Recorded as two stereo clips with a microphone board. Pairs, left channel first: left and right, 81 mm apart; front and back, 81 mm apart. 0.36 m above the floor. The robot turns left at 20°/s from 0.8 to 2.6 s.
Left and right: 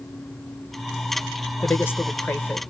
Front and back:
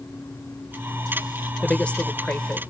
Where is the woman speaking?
70° left, 1.0 m; by 2.6 s 50° left, 1.0 m.